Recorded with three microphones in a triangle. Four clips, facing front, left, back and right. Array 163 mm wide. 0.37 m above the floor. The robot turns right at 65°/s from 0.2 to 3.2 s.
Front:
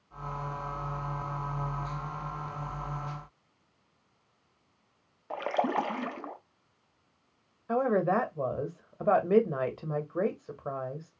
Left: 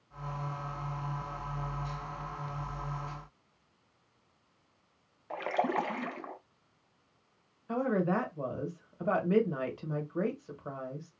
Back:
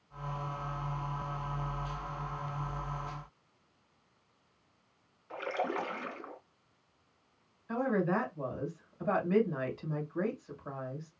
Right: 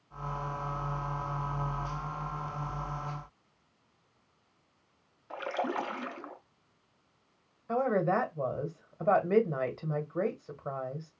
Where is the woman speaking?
10° right, 1.5 m.